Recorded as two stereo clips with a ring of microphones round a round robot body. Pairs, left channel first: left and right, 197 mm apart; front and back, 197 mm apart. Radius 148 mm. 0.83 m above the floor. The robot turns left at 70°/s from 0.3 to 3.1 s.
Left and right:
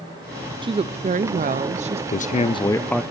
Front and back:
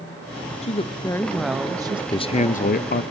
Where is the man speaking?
65° left, 0.7 m; by 3.0 s straight ahead, 0.7 m.